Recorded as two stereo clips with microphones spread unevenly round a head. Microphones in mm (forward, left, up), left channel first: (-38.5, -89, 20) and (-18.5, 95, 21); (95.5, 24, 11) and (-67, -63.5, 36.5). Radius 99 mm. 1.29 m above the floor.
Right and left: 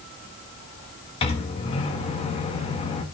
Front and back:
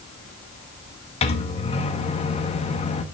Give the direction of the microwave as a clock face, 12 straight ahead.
1 o'clock.